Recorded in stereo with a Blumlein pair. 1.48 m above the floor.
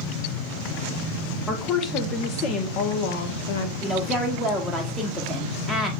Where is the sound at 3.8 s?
Straight ahead, 1.5 m.